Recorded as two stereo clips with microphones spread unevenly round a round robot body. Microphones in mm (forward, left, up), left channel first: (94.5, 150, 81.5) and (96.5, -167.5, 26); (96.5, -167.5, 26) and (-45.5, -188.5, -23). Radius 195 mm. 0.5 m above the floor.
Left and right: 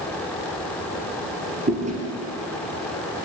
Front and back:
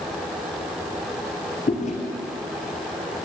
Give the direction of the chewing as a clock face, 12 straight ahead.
1 o'clock.